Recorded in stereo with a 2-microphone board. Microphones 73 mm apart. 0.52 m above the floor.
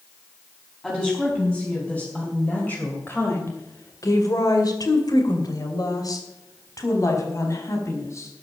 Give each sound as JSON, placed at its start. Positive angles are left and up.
{"t": 0.8, "sound": "a woman speaking", "side_deg": 10, "distance_m": 4.0}